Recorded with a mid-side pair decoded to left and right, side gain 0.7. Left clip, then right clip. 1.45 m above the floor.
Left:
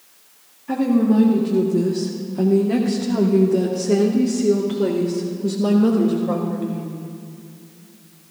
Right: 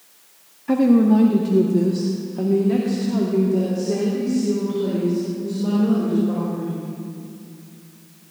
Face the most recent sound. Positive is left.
turn(degrees=45)